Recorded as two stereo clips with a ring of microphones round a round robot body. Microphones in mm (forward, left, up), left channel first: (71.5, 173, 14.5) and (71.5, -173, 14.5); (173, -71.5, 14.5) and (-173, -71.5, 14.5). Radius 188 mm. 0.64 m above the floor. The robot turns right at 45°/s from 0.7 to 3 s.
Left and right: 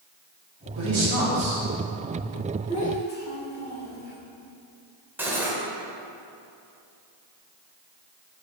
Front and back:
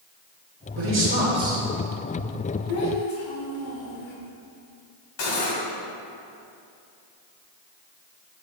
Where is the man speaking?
135° right, 3 m; by 2.6 s 50° right, 3 m.